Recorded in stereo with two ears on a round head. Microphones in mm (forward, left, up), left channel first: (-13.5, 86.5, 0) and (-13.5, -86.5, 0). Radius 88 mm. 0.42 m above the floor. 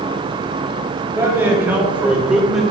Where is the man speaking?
15° right (ahead or behind), 1.6 m; by 2.6 s centre (ahead or behind), 0.9 m.